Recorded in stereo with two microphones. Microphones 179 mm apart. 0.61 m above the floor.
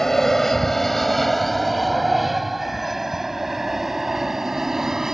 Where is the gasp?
No gasp in this recording.